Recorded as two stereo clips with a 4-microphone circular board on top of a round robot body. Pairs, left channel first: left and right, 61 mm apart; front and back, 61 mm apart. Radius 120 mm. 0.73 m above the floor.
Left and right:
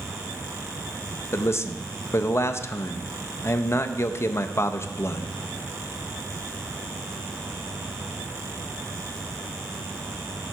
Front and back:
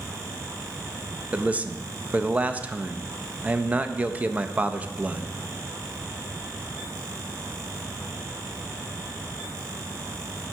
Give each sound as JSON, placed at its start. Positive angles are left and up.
{"t": 1.3, "sound": "a man speaking", "azimuth_deg": 120, "distance_m": 0.6}